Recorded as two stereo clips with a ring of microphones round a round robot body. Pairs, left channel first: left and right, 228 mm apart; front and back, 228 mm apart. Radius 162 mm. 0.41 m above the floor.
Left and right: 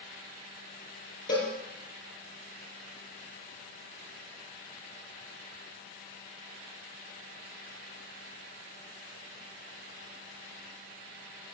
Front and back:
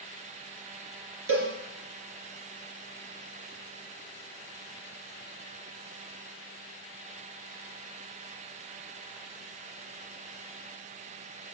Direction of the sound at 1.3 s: 155° left.